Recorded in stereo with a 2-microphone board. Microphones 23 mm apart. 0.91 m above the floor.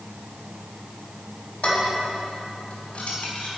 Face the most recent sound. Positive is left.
turn(degrees=55)  # may be behind; listen again after turning